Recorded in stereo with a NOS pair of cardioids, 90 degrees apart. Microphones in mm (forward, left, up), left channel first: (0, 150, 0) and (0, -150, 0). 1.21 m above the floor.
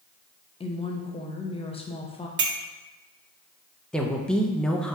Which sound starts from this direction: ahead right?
A clink, at 2.4 s.